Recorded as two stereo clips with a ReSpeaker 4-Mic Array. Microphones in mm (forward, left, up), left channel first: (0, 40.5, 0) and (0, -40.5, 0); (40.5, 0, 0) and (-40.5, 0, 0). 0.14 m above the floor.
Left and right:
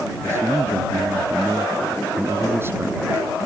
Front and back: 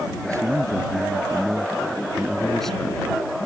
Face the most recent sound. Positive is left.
turn(degrees=-55)